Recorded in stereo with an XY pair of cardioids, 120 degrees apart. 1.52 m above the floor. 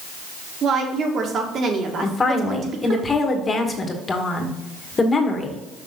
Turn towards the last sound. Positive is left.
turn(degrees=25)